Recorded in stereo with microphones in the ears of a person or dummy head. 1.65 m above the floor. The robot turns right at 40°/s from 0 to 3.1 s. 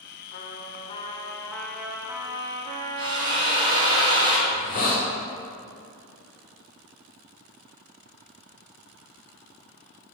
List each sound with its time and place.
0.3 s a trumpet: 130° left, 0.7 m; by 4.0 s 120° right, 0.7 m
3.0 s a drill: 25° right (ahead or behind), 1.6 m; by 4.4 s 20° right (ahead or behind), 1.6 m
4.5 s a hiss: 35° left (ahead or behind), 0.9 m